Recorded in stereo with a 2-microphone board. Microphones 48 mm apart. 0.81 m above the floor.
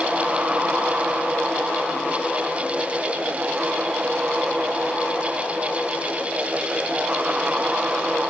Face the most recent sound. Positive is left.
No sound to turn to.